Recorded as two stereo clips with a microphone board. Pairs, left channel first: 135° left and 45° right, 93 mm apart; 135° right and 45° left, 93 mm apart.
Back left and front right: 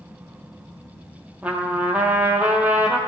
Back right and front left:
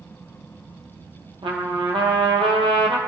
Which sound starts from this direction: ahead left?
A trumpet, at 1.4 s.